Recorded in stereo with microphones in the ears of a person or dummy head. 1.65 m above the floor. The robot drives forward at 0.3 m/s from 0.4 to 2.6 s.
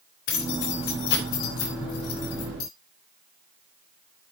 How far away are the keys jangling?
About 7 m.